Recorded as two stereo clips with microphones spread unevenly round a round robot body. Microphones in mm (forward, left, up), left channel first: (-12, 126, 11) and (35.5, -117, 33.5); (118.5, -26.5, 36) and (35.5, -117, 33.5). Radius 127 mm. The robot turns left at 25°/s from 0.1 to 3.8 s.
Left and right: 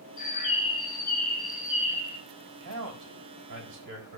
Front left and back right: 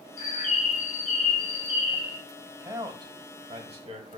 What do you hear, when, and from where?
0.2 s a bird: 45° left, 2 m; by 2.2 s 5° right, 2 m
2.6 s a man speaking: 65° right, 4 m; by 4.2 s 95° right, 4 m